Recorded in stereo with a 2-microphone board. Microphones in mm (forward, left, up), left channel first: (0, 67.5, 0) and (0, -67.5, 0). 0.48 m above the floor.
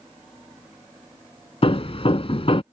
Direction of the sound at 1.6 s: 45° left (ahead or behind).